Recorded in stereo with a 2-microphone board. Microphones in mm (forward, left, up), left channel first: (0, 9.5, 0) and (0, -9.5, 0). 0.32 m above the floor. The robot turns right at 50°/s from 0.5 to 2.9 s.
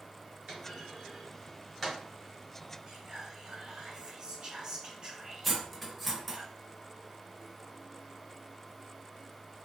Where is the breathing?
No breathing in this recording.